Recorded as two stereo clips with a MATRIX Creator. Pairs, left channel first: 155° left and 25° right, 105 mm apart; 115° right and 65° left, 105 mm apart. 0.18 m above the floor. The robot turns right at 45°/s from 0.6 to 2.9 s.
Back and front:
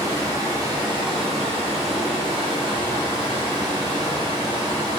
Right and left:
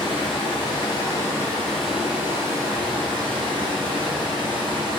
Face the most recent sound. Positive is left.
turn(degrees=25)